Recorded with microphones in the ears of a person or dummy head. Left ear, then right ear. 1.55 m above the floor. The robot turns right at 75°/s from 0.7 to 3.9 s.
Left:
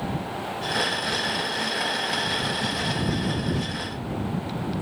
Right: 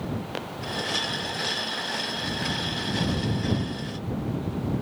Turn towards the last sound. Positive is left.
No sound to turn to.